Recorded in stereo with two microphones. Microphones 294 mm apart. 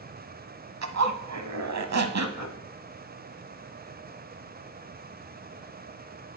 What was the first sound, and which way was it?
A zipper, 65° right (ahead or behind).